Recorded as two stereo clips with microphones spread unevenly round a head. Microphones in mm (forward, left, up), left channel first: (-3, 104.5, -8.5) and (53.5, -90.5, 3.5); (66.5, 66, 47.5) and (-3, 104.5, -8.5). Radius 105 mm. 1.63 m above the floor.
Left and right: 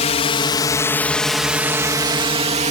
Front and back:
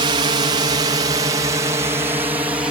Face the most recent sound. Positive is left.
turn(degrees=-135)